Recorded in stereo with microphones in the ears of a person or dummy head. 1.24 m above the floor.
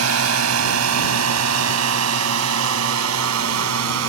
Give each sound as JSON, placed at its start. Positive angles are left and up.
{"t": 0.0, "sound": "a drone", "side_deg": -80}